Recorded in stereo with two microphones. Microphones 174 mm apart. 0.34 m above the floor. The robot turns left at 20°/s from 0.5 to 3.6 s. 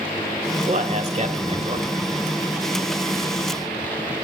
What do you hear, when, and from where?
0.7 s a man speaking: 40° right (ahead or behind), 1.4 m; by 1.9 s 30° right (ahead or behind), 1.4 m